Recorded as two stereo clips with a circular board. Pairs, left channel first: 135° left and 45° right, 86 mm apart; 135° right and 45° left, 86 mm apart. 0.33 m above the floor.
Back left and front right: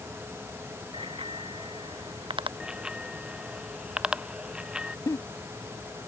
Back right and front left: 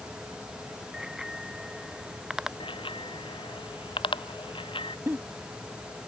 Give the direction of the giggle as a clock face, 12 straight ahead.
9 o'clock.